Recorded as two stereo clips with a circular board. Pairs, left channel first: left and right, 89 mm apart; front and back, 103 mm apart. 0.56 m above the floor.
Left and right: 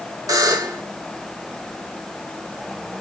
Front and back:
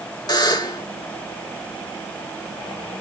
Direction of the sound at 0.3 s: 45° right.